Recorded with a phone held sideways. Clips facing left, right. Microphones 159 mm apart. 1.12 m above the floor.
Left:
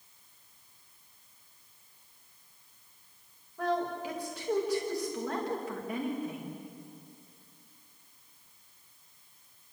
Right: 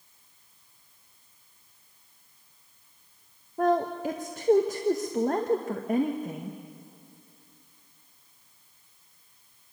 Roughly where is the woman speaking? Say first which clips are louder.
Right 7 dB; right.